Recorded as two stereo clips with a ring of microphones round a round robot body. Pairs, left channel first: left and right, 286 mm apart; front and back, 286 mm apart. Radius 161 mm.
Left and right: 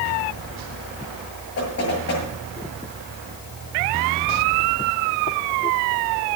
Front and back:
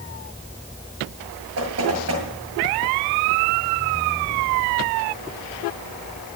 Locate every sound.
1.6 s knocking: 145° left, 8 m